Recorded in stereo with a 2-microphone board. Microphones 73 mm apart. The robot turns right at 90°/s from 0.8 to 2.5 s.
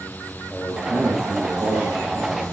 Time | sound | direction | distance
0.5 | a man speaking | 155° left | 5 m